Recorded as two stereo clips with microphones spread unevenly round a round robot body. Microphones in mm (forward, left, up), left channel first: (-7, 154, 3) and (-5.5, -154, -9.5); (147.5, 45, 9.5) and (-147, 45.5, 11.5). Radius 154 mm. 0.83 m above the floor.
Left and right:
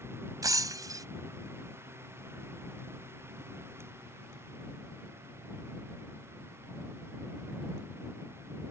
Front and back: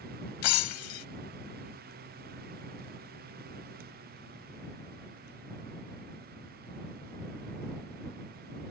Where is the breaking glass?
10° right.